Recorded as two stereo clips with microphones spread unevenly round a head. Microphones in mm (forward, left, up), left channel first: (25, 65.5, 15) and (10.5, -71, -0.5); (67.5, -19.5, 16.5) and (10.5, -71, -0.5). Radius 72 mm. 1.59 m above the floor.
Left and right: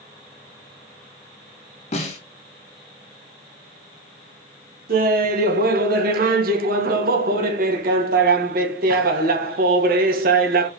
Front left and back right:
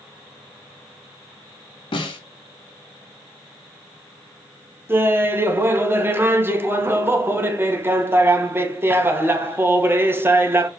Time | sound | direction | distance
1.9 | a snare drum | 40° left | 2.5 m
4.9 | laughter | 75° right | 2 m